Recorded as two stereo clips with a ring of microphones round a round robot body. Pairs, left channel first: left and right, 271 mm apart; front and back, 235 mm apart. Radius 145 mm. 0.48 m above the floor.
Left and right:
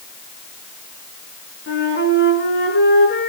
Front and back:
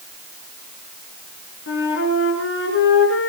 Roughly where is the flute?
Ahead left.